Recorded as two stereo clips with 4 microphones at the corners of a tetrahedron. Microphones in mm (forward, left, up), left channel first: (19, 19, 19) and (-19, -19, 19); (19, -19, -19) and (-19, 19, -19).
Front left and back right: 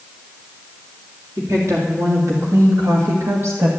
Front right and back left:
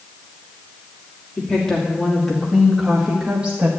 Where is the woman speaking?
120° right, 3 m; by 3.7 s 165° right, 1.6 m.